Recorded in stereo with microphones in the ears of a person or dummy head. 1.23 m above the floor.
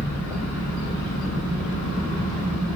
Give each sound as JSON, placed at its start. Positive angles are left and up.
{"t": 0.0, "sound": "an engine running", "side_deg": 25, "distance_m": 1.1}